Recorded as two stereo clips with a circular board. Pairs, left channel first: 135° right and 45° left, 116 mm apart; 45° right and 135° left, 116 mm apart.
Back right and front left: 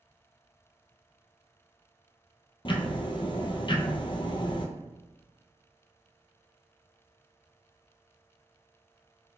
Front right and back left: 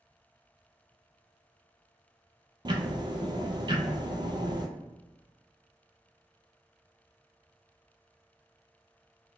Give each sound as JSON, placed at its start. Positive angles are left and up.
{"t": 2.6, "sound": "ticking", "azimuth_deg": -175, "distance_m": 0.6}